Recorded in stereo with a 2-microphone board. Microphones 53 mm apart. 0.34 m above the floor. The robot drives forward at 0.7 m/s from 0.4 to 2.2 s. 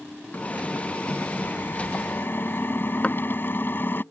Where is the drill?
30° left (ahead or behind); by 4.0 s 45° left (ahead or behind).